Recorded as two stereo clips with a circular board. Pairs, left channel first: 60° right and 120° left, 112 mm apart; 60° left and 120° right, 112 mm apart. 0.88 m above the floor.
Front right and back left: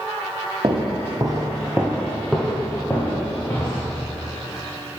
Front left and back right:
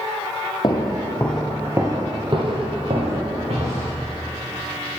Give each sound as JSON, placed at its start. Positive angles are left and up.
{"t": 0.6, "sound": "footsteps", "azimuth_deg": 95, "distance_m": 1.3}